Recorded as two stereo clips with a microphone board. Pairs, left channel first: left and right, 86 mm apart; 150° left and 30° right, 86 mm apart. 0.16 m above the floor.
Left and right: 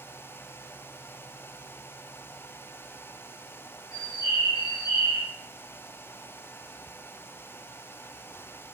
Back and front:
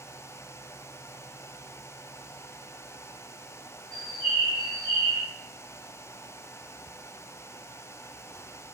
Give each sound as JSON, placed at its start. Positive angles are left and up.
{"t": 3.9, "sound": "a bird", "azimuth_deg": 140, "distance_m": 3.0}